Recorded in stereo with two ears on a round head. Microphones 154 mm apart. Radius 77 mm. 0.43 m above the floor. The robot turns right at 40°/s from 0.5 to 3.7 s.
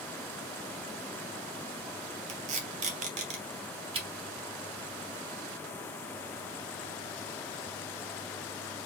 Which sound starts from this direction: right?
Tape being pulled, at 2.3 s.